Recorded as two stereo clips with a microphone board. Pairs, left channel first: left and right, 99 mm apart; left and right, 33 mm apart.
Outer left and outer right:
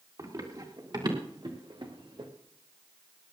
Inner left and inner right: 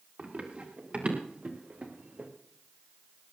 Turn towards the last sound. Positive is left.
turn(degrees=-50)  # may be behind; listen again after turning